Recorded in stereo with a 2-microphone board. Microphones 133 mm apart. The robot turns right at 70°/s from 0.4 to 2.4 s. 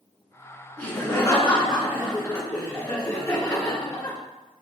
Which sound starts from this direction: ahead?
Laughter, at 0.8 s.